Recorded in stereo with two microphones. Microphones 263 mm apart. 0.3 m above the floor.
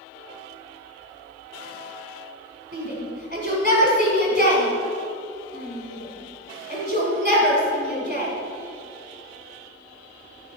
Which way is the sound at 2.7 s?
30° right (ahead or behind).